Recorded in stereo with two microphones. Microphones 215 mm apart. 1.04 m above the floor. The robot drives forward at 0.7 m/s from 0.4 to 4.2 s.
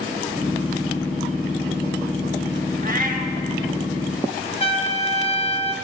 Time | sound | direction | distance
2.8 | a cat meowing | 40° right (ahead or behind) | 0.8 m
4.6 | a trumpet | 25° left (ahead or behind) | 0.9 m